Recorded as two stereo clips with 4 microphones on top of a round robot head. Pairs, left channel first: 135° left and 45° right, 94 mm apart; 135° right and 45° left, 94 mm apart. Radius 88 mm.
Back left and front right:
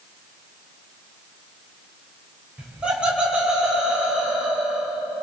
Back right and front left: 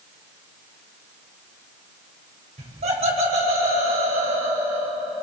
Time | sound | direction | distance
2.6 | laughter | 35° left | 7.5 m